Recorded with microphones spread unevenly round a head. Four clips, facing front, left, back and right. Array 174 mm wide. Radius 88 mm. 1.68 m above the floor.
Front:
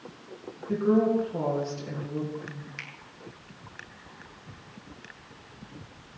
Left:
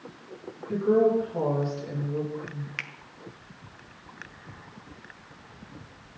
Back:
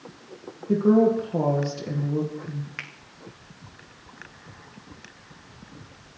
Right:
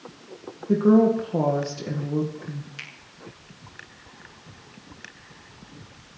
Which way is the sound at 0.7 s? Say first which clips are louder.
Right 4 dB, back 5 dB; 120° right.